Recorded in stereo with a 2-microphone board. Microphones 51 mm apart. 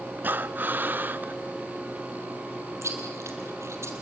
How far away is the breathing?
About 0.6 m.